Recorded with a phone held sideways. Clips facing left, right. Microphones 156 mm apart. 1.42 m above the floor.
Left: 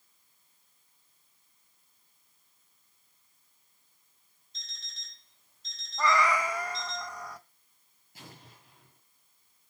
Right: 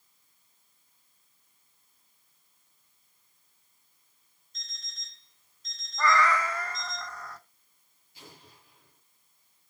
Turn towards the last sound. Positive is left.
turn(degrees=50)  # may be behind; listen again after turning